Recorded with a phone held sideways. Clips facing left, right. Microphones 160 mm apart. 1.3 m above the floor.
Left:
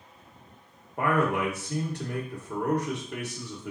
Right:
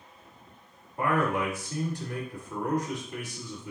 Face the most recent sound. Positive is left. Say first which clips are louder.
# left 1 dB
turn(degrees=70)  # may be behind; listen again after turning